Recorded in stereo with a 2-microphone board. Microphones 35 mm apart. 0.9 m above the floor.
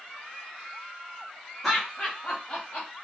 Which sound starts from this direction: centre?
Laughter, at 1.6 s.